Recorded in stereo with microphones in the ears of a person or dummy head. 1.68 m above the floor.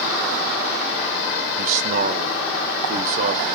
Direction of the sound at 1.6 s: 40° right (ahead or behind).